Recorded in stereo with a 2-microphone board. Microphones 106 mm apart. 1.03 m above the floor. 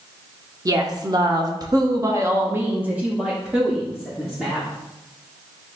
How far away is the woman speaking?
About 1.3 m.